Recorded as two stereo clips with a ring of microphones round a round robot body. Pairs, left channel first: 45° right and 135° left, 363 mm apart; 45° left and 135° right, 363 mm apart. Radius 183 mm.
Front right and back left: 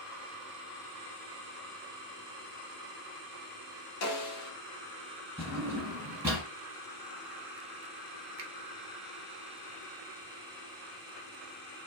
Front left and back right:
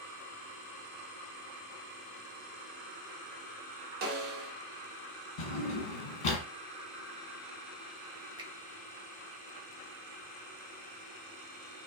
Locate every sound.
4.0 s a snare drum: 80° right, 0.9 m
5.4 s a drawer: 50° left, 1.5 m
8.4 s a finger snap: 155° left, 0.7 m